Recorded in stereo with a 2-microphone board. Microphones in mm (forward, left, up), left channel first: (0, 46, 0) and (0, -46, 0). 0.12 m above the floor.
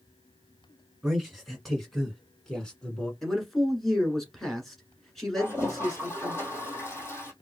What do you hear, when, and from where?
1.0 s a man speaking: 5° right (ahead or behind), 1.5 m; by 3.1 s 10° left (ahead or behind), 1.5 m
3.2 s a man speaking: centre (ahead or behind), 1.4 m
5.4 s a toilet flushing: 30° left (ahead or behind), 1.6 m